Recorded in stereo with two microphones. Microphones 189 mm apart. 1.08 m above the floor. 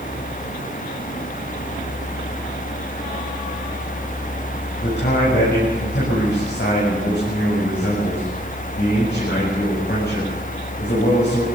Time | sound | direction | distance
4.8 | a man speaking | 60° left (ahead or behind) | 8 m